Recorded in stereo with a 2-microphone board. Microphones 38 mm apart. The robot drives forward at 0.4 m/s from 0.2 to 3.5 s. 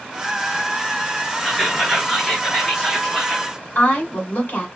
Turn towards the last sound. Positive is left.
turn(degrees=50)  # may be behind; listen again after turning